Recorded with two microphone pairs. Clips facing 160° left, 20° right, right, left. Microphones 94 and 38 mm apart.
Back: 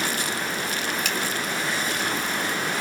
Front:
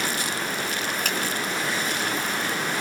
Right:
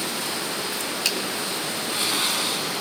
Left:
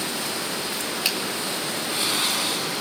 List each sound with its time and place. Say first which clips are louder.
1.1 s a finger snap: even, even; 20° left, 2 m